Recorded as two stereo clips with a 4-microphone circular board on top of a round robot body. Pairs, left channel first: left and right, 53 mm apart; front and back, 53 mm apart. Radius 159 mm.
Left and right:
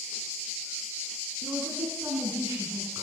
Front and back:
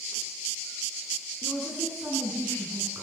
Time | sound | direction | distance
1.4 | a woman speaking | 125° right | 8.5 m